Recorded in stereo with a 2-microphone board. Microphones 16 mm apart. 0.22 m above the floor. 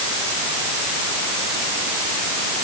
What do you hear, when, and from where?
Only background noise.